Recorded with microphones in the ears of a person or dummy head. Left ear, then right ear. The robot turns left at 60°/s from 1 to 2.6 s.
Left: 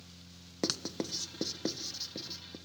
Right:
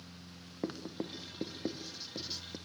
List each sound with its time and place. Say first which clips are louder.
0.6 s writing: left 5 dB; 70° left (ahead or behind), 1.1 m; by 2.6 s 20° right (ahead or behind), 1.1 m